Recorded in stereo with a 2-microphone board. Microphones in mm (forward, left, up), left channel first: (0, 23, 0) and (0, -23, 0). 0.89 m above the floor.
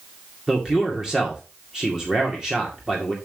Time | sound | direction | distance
0.5 | a man speaking | 10° right (ahead or behind) | 2 m